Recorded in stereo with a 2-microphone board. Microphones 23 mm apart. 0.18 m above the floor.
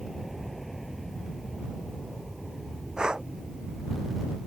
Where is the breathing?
40° right (ahead or behind).